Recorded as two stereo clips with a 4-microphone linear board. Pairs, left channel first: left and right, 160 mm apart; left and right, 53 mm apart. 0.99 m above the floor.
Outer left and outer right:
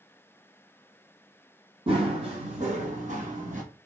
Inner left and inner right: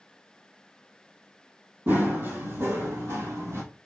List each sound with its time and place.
1.9 s running footsteps: 35° right (ahead or behind), 1.5 m; by 3.6 s 55° right (ahead or behind), 1.6 m